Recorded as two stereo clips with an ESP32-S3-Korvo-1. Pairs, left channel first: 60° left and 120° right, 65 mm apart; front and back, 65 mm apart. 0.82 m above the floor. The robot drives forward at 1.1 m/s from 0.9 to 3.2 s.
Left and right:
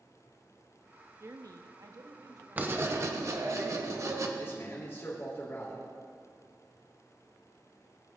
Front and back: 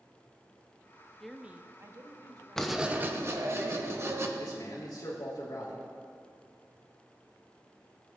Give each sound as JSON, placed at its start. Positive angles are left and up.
{"t": 1.2, "sound": "a woman speaking", "azimuth_deg": -80, "distance_m": 0.7}
{"t": 2.6, "sound": "writing", "azimuth_deg": -75, "distance_m": 0.7}
{"t": 4.4, "sound": "a man speaking", "azimuth_deg": 5, "distance_m": 2.5}